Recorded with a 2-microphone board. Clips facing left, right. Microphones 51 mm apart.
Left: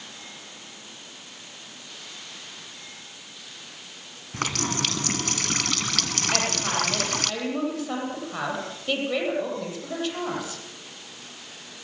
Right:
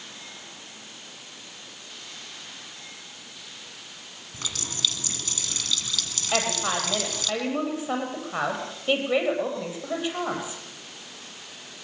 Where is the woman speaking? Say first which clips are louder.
Right 2 dB; 20° right (ahead or behind), 9.5 m.